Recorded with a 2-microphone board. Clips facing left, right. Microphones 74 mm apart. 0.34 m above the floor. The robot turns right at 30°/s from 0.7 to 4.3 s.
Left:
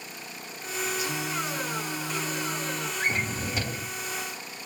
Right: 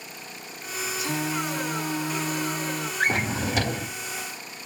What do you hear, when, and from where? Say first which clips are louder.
1.0 s singing: right 3 dB; 90° right, 0.9 m; by 2.9 s 35° right, 0.9 m
3.0 s a drawer: right 6 dB; 70° right (ahead or behind), 0.5 m; by 4.0 s 75° right (ahead or behind), 0.5 m